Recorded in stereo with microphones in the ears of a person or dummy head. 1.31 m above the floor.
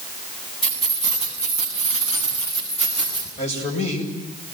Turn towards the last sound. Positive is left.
turn(degrees=35)  # may be behind; listen again after turning